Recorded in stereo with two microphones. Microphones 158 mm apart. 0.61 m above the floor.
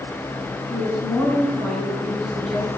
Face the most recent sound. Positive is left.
turn(degrees=5)  # may be behind; listen again after turning